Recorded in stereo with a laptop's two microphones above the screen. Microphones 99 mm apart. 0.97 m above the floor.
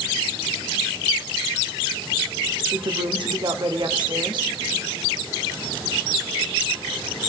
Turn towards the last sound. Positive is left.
turn(degrees=-50)  # may be behind; listen again after turning